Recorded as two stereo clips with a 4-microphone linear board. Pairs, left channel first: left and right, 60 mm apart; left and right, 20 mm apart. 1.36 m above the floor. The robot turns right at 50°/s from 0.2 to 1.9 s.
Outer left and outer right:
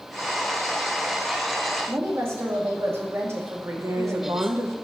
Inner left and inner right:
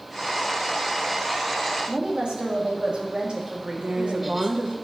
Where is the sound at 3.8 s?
60° right (ahead or behind), 1.1 m.